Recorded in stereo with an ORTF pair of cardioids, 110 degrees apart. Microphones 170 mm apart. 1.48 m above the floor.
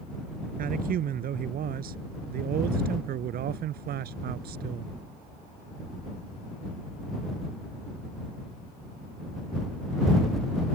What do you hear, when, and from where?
0.6 s a man speaking: 55° right; by 4.9 s 70° right